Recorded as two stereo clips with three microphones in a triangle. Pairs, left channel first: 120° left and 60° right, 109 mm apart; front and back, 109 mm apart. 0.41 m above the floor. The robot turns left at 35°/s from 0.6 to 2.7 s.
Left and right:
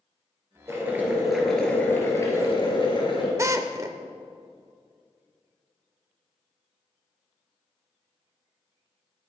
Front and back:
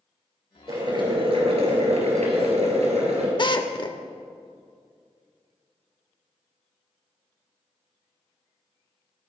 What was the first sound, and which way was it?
Boiling, 125° right.